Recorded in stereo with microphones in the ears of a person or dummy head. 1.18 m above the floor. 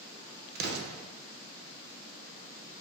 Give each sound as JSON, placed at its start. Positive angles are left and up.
{"t": 0.6, "sound": "an explosion", "side_deg": -55, "distance_m": 0.7}